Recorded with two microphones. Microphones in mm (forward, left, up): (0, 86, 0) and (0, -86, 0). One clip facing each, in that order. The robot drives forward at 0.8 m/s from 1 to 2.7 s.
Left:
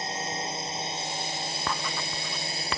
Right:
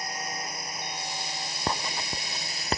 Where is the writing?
30° right (ahead or behind); by 2.8 s 35° right (ahead or behind).